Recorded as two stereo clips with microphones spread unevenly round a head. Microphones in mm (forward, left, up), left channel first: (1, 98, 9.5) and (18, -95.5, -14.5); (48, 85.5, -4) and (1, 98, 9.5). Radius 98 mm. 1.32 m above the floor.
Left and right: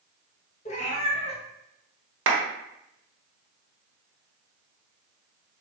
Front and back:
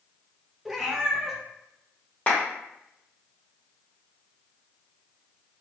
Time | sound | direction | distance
0.7 | a cat meowing | 110° left | 0.6 m
2.3 | a clap | 100° right | 0.7 m